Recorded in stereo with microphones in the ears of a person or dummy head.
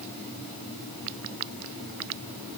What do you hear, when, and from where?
Only background noise.